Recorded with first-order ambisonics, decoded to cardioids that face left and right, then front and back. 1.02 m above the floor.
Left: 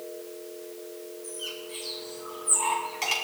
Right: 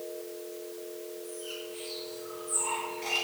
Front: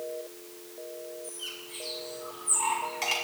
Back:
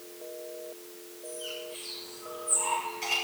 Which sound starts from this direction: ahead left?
A bird, at 1.2 s.